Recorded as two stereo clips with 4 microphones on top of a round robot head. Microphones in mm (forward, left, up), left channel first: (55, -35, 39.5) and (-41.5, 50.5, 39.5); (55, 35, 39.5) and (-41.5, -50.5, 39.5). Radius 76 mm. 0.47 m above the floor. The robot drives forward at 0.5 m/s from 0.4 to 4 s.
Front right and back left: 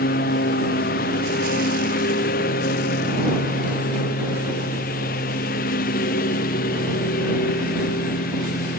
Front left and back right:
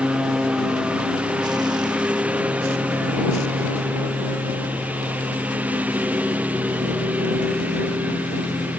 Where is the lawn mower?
55° right; by 8.8 s 60° right.